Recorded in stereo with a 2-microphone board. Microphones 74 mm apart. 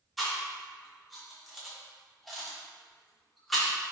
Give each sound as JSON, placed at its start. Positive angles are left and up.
{"t": 0.2, "sound": "chewing", "side_deg": 0, "distance_m": 1.0}